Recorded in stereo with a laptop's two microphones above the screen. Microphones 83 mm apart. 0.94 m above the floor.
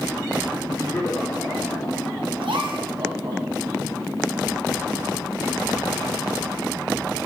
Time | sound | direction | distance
0.7 | laughter | 45° left (ahead or behind) | 3 m
2.4 | a gasp | 80° right | 0.9 m